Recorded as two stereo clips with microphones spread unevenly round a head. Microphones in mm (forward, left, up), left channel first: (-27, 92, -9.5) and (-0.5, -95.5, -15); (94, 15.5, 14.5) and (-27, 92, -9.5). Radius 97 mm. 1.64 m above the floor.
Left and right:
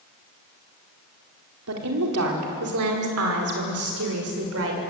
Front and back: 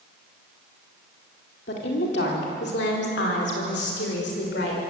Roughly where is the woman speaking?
Ahead right.